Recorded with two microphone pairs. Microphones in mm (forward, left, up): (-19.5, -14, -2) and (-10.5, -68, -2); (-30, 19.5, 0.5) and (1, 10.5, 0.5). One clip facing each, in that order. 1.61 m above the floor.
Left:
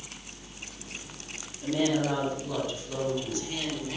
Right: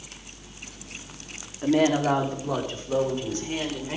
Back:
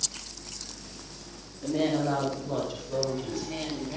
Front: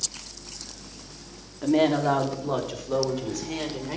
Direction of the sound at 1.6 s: 45° right.